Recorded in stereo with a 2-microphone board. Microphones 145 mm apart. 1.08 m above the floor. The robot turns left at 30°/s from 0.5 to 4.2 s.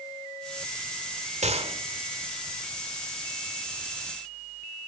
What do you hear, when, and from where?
1.4 s a gunshot: 50° right (ahead or behind), 1.7 m; by 1.8 s 40° right (ahead or behind), 1.7 m